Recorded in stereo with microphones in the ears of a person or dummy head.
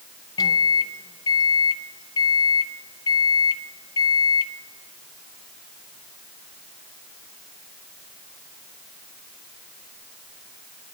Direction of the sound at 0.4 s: 20° left (ahead or behind).